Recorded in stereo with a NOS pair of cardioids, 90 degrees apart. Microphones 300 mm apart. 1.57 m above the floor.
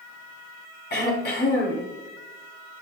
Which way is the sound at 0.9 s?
30° left.